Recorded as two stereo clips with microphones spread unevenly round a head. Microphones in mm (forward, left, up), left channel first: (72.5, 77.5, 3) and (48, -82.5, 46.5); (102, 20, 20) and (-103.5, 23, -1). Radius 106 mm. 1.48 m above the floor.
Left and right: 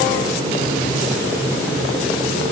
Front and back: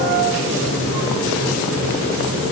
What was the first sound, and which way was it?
Only background noise.